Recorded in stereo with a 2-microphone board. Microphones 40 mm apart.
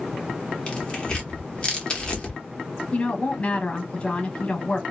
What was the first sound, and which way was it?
Tearing paper, 25° left (ahead or behind).